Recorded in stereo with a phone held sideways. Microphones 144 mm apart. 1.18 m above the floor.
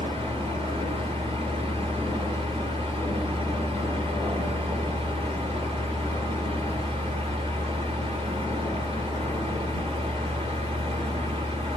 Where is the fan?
40° right (ahead or behind), 1.8 m.